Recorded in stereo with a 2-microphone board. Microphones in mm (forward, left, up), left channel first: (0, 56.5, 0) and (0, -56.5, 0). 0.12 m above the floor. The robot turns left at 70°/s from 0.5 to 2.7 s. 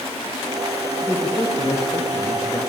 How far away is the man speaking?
About 3 m.